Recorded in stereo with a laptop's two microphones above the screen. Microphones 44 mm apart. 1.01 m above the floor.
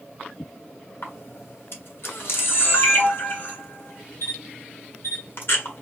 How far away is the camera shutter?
About 1.6 m.